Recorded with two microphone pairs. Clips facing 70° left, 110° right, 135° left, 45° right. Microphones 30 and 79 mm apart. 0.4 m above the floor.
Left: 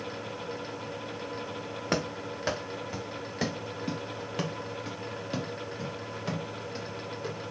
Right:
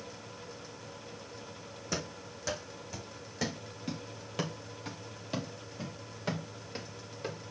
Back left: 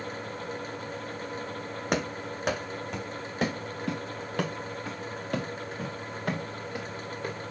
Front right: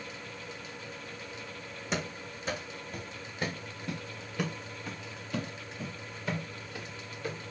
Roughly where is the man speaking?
I don't hear a man speaking.